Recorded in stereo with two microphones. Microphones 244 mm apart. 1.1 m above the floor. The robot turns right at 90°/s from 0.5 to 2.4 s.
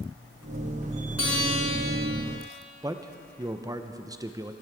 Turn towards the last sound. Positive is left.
turn(degrees=-15)  # may be behind; listen again after turning